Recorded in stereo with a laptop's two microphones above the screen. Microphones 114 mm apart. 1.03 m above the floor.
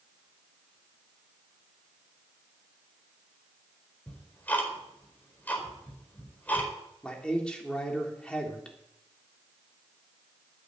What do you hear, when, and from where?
4.1 s ticking: 15° left (ahead or behind), 4.5 m
7.0 s a man speaking: 10° left (ahead or behind), 3.5 m